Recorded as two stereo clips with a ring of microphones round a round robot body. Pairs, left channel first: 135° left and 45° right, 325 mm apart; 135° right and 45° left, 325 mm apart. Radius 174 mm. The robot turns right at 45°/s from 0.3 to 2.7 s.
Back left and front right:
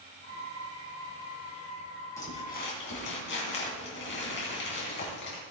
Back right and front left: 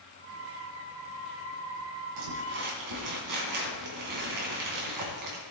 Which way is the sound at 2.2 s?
55° left.